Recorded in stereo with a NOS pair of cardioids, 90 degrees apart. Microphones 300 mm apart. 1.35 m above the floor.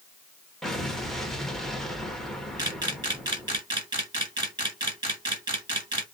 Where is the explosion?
Straight ahead, 0.7 m.